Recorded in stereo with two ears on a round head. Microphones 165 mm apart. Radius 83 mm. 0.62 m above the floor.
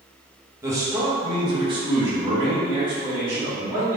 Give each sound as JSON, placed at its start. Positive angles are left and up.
{"t": 0.6, "sound": "a man speaking", "side_deg": -15, "distance_m": 0.9}